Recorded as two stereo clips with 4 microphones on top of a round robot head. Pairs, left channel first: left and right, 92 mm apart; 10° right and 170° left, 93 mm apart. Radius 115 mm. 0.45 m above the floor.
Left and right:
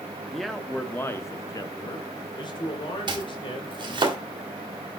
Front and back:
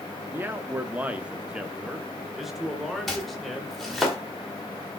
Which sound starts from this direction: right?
Chopping, at 3.1 s.